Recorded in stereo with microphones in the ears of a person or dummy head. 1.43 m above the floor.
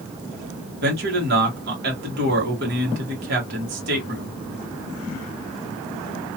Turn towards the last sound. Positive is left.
turn(degrees=-55)  # may be behind; listen again after turning